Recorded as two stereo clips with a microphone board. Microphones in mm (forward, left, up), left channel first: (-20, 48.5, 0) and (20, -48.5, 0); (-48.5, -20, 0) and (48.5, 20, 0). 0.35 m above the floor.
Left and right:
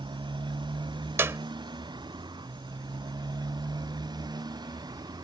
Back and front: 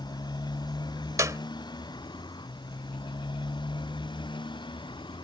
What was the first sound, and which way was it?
A motorcycle, 110° right.